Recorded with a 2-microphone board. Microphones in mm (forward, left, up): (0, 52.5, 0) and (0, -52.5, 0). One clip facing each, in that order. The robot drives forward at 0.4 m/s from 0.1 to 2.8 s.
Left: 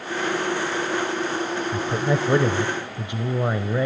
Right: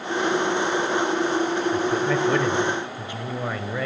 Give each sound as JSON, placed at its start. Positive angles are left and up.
{"t": 1.7, "sound": "a man speaking", "side_deg": 25, "distance_m": 0.9}